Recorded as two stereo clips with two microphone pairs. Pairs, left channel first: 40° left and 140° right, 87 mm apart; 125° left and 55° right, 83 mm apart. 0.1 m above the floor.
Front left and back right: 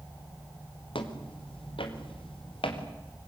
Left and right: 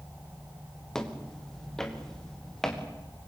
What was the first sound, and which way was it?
Footsteps, 40° left.